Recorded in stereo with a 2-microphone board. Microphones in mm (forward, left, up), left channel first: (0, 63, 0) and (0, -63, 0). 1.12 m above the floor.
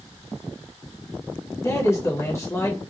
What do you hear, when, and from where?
1.6 s a man speaking: 25° left (ahead or behind), 1.0 m